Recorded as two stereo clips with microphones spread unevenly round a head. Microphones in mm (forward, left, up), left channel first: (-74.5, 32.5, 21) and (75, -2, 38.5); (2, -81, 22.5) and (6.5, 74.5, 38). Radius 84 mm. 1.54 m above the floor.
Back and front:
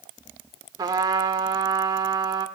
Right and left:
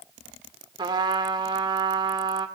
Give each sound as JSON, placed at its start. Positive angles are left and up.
{"t": 0.8, "sound": "a trumpet", "azimuth_deg": 40, "distance_m": 1.5}